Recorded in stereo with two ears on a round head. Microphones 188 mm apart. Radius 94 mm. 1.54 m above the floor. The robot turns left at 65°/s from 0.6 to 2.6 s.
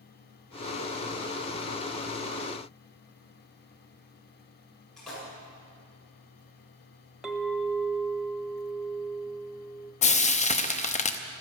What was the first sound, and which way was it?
A splash, centre (ahead or behind).